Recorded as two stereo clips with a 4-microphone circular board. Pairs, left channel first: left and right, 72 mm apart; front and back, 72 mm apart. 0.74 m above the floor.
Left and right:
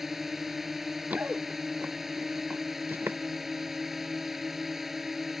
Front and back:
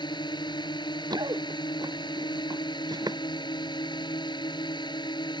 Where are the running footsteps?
160° right; by 3.2 s 150° right.